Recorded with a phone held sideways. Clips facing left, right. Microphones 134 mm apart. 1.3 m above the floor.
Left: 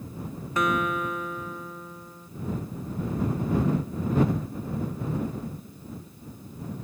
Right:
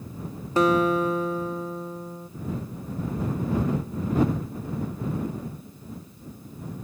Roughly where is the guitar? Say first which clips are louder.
Right 6 dB; right.